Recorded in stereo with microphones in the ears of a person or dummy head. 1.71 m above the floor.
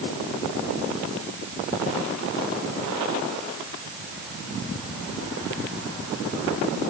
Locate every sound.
Only background noise.